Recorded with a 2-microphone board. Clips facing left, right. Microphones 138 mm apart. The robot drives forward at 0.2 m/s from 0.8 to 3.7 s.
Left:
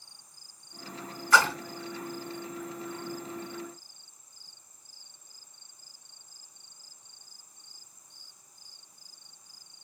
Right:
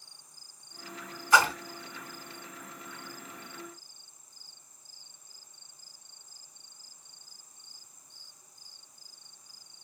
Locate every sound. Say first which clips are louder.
1.3 s a splash: even; 20° right (ahead or behind), 0.9 m